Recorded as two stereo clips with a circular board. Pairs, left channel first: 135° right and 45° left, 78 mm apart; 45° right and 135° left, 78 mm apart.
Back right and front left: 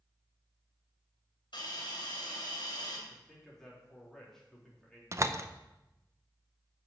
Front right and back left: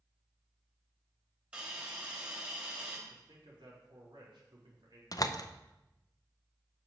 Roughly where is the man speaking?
Behind left.